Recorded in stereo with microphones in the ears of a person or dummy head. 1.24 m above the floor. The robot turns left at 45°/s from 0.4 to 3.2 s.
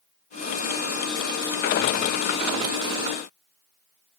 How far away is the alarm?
No alarm in this recording.